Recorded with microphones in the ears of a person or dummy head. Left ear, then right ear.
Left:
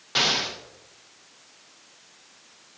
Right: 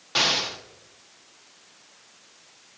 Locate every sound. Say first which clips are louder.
0.1 s an explosion: even; 5° right (ahead or behind), 0.7 m